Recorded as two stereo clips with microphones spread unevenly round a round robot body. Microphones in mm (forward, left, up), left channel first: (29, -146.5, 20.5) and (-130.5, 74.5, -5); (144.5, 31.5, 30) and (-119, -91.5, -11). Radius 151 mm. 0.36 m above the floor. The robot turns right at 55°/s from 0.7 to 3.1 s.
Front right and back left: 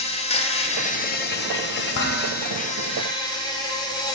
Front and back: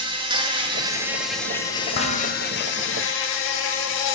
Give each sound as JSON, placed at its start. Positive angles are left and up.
{"t": 0.0, "sound": "an insect", "azimuth_deg": -110, "distance_m": 0.7}
{"t": 1.9, "sound": "dishes clattering", "azimuth_deg": -35, "distance_m": 1.2}